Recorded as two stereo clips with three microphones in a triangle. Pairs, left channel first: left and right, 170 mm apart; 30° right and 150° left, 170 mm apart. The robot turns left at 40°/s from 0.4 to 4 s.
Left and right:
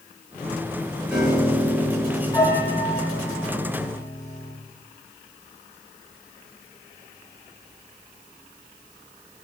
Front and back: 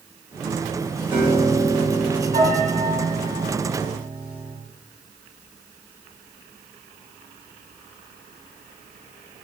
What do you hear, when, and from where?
1.1 s a piano: 170° right, 0.9 m; by 4.5 s 75° left, 0.9 m